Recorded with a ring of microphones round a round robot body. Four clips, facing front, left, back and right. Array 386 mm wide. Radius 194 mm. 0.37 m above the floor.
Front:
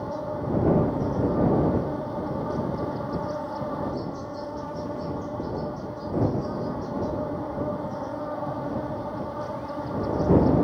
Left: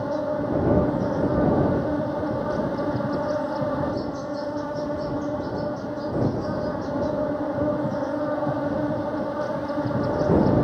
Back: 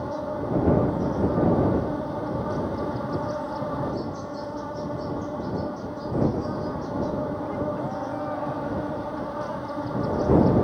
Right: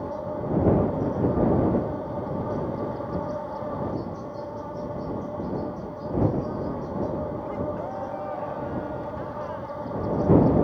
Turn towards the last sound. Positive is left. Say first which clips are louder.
# left 5 dB, back 1 dB
turn(degrees=95)